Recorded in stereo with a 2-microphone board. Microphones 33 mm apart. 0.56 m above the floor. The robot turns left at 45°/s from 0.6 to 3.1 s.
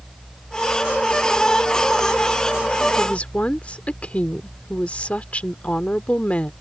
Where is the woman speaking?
35° left (ahead or behind); by 6.5 s 40° left (ahead or behind).